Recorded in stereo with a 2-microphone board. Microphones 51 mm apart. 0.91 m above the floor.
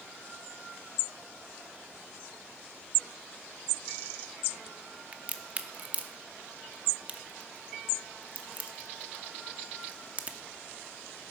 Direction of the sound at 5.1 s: 30° right (ahead or behind).